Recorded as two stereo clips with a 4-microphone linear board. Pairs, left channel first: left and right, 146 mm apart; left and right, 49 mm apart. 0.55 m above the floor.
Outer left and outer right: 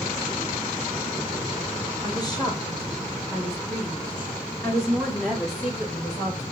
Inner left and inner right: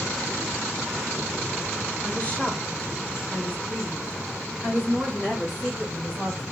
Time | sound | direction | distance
2.0 | a woman speaking | 25° left (ahead or behind) | 1.3 m